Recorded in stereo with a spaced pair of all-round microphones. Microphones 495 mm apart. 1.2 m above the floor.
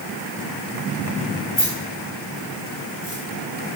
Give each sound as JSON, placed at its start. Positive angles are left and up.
{"t": 1.6, "sound": "keys jangling", "side_deg": 20, "distance_m": 1.9}